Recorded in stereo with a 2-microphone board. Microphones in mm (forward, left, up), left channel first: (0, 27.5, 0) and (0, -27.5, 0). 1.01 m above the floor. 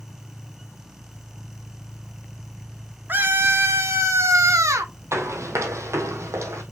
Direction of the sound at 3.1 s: 40° right (ahead or behind).